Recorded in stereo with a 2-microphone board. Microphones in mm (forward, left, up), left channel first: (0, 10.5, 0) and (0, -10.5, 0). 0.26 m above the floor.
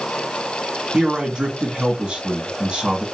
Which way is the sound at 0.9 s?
45° right (ahead or behind).